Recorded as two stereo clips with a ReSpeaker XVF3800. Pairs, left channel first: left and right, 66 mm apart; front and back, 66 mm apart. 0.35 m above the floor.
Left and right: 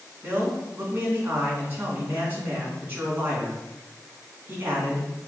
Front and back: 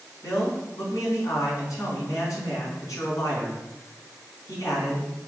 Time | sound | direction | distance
0.2 | a man speaking | 30° right | 3 m